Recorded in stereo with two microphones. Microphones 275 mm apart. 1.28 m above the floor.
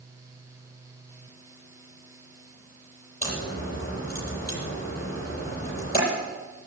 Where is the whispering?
No whispering in this recording.